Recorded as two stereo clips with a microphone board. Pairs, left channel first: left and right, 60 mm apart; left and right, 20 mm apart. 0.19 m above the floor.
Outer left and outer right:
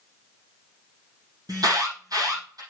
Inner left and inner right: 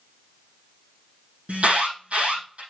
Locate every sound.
1.5 s an alarm: 80° right, 4.5 m